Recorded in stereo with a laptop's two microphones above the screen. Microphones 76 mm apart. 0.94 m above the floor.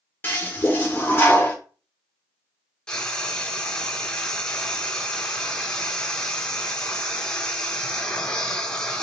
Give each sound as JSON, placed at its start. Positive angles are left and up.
{"t": 0.2, "sound": "a toilet flushing", "side_deg": 30, "distance_m": 1.2}
{"t": 2.9, "sound": "frying", "side_deg": 10, "distance_m": 0.9}